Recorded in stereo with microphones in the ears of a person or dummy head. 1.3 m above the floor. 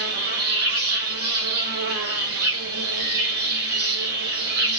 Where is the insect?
75° right (ahead or behind), 3 m.